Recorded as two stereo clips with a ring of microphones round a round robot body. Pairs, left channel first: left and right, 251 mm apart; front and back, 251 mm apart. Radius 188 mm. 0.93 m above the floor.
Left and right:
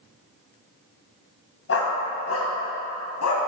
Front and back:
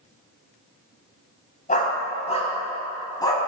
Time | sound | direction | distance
1.7 | a dog barking | 60° left | 2.5 m